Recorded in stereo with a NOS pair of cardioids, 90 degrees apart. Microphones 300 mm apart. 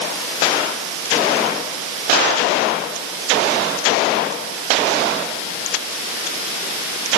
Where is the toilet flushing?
I don't hear a toilet flushing.